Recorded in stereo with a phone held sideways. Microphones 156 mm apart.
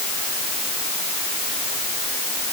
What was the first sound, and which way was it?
Only background noise.